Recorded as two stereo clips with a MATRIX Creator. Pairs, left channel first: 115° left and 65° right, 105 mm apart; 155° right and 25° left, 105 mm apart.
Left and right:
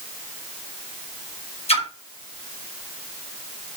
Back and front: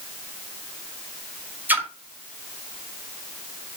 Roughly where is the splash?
Left.